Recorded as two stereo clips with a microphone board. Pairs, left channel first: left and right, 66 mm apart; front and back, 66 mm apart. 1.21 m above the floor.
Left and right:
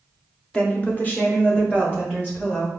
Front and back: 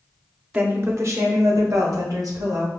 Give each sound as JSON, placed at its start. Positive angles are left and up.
{"t": 0.5, "sound": "a woman speaking", "azimuth_deg": 130, "distance_m": 0.6}